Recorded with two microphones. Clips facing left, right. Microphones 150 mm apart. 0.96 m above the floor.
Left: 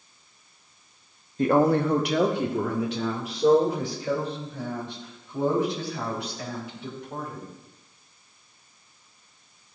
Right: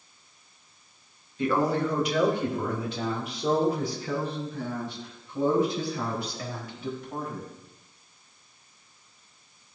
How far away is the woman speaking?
About 1.2 m.